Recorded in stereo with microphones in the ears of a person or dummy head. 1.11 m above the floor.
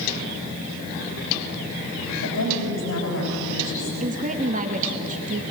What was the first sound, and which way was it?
A woman speaking, 85° left.